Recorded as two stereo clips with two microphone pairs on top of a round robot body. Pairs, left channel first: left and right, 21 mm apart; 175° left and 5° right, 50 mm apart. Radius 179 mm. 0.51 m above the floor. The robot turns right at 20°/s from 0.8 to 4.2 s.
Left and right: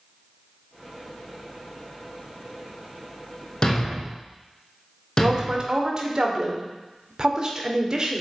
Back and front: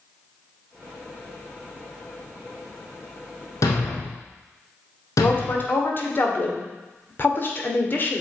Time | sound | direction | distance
3.6 | a thud | 150° left | 0.6 m
5.2 | a woman speaking | 145° right | 2 m